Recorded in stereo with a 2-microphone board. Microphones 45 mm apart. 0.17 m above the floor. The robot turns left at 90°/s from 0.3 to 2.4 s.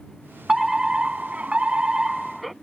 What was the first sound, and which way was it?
A fire alarm, 5° right (ahead or behind).